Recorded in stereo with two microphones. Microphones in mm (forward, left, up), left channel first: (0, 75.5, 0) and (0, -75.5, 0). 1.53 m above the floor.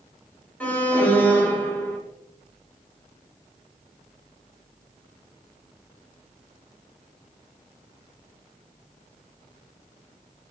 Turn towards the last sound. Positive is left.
turn(degrees=10)  # may be behind; listen again after turning